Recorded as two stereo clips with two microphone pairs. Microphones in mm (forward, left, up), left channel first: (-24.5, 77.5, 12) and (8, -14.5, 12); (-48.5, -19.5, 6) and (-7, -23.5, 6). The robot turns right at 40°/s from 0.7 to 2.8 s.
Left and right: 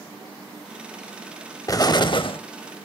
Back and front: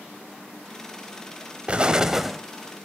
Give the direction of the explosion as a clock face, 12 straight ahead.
10 o'clock.